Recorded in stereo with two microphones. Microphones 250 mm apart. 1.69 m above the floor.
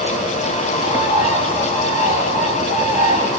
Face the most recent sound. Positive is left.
turn(degrees=30)  # may be behind; listen again after turning